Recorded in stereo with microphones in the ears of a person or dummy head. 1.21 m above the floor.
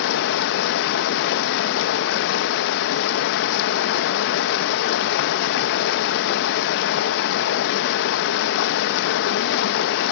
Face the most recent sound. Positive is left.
turn(degrees=75)  # may be behind; listen again after turning